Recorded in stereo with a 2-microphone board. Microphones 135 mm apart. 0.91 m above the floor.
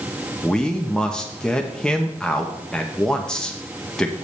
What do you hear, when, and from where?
0.4 s a man speaking: 5° left (ahead or behind), 0.7 m